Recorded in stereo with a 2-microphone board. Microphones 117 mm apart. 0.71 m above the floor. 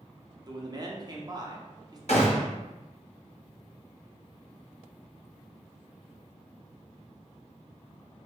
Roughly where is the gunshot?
Left.